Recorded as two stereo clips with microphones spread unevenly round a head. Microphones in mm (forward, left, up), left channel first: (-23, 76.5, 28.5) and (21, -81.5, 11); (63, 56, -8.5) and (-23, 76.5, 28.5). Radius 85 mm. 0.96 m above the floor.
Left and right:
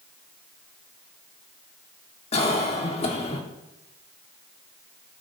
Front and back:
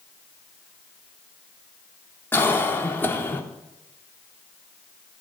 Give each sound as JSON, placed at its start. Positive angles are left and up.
{"t": 2.3, "sound": "a cough", "azimuth_deg": 50, "distance_m": 2.5}